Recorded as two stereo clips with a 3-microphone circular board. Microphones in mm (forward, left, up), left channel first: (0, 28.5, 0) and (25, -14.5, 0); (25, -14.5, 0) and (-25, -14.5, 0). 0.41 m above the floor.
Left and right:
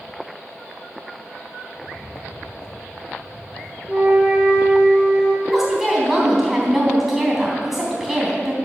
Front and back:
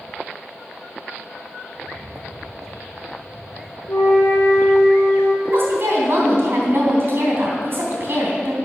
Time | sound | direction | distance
1.7 | footsteps | 105° left | 1.1 m
3.9 | a flute | 15° left | 2.5 m
5.4 | a woman speaking | 150° right | 3 m